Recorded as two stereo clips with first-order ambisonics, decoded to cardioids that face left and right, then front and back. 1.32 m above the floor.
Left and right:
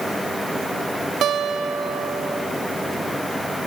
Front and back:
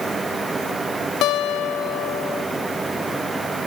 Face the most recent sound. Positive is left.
turn(degrees=-35)